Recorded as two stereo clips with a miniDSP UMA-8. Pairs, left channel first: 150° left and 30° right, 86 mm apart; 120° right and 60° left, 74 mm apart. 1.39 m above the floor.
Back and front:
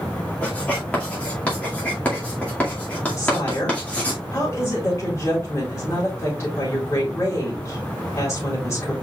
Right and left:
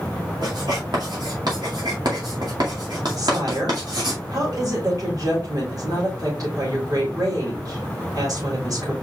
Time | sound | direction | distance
0.4 | writing | 75° left | 2 m
3.2 | a woman speaking | 95° left | 3.5 m